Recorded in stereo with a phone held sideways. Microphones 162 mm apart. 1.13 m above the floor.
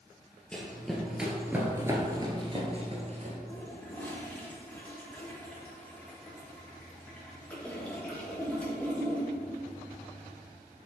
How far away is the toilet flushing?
About 1.5 m.